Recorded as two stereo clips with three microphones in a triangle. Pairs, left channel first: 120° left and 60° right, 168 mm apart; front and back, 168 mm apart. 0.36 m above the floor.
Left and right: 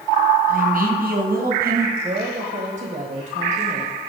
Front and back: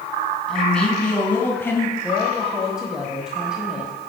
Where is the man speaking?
85° right, 3 m; by 1.9 s 75° right, 3 m.